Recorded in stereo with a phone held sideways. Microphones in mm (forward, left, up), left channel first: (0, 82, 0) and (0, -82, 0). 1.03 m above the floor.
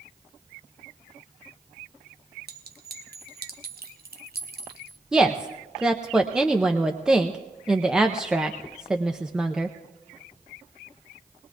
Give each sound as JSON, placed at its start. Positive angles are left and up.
{"t": 2.5, "sound": "a clink", "side_deg": -75, "distance_m": 0.8}
{"t": 5.1, "sound": "a woman speaking", "side_deg": -5, "distance_m": 0.5}